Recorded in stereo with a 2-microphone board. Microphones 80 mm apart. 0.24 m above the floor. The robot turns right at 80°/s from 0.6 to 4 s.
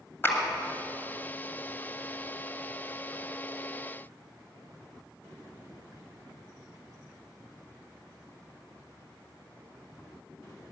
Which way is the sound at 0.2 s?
30° left (ahead or behind).